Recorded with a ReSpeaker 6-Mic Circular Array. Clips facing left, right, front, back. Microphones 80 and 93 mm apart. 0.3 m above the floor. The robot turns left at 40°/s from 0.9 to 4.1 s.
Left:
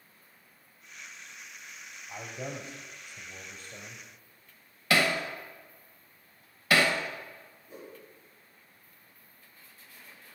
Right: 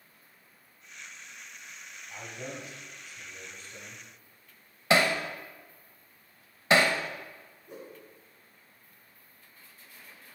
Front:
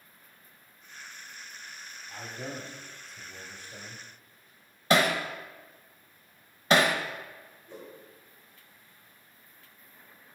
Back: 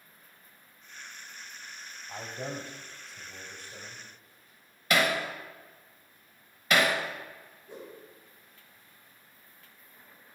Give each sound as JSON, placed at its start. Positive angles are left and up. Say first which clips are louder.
{"t": 2.1, "sound": "a man speaking", "louder": "left 2 dB, back 2 dB", "azimuth_deg": 140, "distance_m": 1.5}
{"t": 4.9, "sound": "hammering", "louder": "right 2 dB, front 2 dB", "azimuth_deg": -40, "distance_m": 0.8}
{"t": 7.7, "sound": "a whoosh", "louder": "right 1 dB, back 1 dB", "azimuth_deg": -105, "distance_m": 3.0}